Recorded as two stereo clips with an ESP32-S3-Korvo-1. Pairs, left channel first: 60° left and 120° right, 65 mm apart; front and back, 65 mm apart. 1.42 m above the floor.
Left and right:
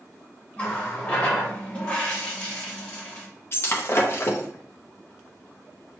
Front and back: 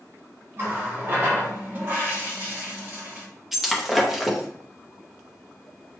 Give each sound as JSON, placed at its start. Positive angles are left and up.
{"t": 0.6, "sound": "a running tap", "azimuth_deg": 130, "distance_m": 1.1}
{"t": 3.5, "sound": "breaking glass", "azimuth_deg": 95, "distance_m": 0.7}